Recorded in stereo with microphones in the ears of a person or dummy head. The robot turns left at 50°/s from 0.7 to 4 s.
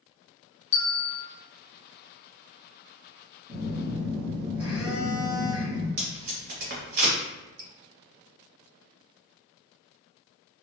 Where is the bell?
25° left (ahead or behind), 0.7 m; by 1.2 s centre (ahead or behind), 0.7 m.